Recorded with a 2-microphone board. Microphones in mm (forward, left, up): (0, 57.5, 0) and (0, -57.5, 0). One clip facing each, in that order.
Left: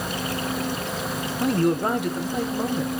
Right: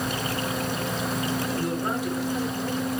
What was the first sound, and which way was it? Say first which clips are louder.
A man speaking: left 6 dB; 60° left (ahead or behind).